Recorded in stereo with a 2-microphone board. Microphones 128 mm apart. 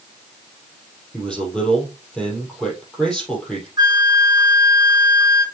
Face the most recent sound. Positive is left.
turn(degrees=-35)  # may be behind; listen again after turning